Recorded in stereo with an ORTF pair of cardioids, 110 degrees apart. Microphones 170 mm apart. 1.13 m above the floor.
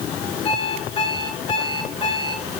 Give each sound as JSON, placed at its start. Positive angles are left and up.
{"t": 0.5, "sound": "an alarm clock", "azimuth_deg": 35, "distance_m": 9.5}